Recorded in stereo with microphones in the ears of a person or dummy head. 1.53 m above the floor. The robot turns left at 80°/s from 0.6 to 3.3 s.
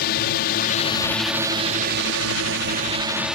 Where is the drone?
50° left (ahead or behind); by 3.4 s 5° right (ahead or behind).